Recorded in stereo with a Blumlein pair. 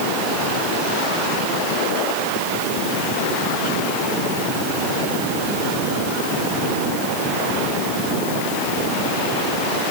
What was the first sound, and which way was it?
Only background noise.